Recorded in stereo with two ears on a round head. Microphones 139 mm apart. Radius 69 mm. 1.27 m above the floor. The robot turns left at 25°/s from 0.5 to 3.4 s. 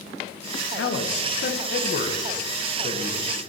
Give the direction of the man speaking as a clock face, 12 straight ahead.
9 o'clock.